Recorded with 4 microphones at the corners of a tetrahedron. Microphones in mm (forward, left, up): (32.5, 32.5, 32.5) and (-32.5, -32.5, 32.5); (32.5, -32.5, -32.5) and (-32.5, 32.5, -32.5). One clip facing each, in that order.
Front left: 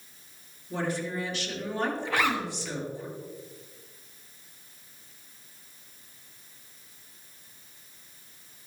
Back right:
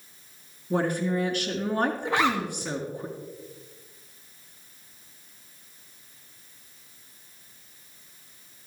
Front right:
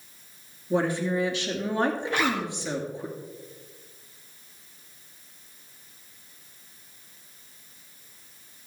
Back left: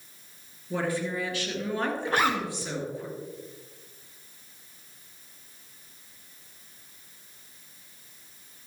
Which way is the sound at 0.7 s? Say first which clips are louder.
Back right 6 dB, front right 4 dB; 110° right.